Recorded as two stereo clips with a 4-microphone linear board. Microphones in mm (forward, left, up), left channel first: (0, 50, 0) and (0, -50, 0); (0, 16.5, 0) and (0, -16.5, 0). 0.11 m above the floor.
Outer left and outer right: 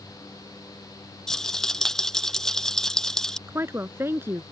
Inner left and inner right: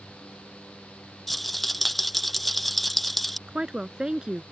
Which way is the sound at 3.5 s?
25° right (ahead or behind).